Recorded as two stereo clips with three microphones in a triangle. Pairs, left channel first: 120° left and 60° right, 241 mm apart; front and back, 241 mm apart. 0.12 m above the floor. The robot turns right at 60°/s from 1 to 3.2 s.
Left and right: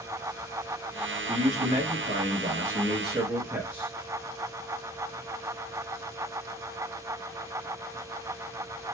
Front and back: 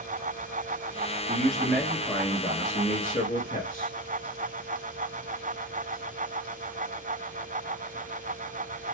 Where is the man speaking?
100° right, 1.8 m; by 4.0 s 15° left, 1.8 m.